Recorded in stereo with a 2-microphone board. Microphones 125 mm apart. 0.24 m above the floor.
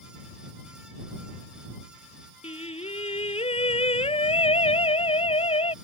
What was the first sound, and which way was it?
Singing, 55° left (ahead or behind).